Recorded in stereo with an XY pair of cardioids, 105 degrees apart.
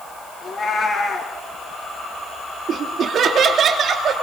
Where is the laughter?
55° right, 2.5 m.